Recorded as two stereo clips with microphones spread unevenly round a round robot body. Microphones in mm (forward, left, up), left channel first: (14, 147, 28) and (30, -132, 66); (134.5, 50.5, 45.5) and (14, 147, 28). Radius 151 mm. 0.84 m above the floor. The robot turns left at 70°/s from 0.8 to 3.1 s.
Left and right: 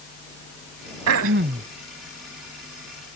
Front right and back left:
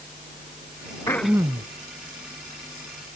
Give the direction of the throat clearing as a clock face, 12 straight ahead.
4 o'clock.